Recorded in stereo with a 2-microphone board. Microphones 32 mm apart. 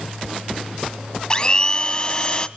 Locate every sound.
1.3 s a blender: 30° left (ahead or behind), 1.2 m